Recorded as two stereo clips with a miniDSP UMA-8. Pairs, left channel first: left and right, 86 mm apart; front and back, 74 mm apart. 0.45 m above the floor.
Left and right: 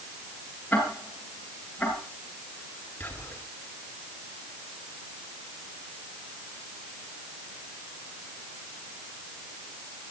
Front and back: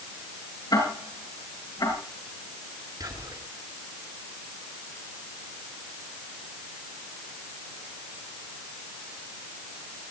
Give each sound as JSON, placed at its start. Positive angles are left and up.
{"t": 0.7, "sound": "ticking", "azimuth_deg": 15, "distance_m": 7.5}
{"t": 3.0, "sound": "whispering", "azimuth_deg": 160, "distance_m": 7.0}